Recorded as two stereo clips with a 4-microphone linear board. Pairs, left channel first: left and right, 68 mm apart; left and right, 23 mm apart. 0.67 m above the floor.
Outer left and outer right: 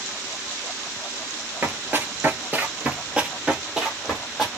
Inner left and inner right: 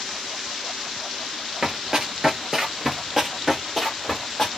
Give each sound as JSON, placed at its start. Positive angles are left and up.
{"t": 1.6, "sound": "running footsteps", "side_deg": -35, "distance_m": 0.8}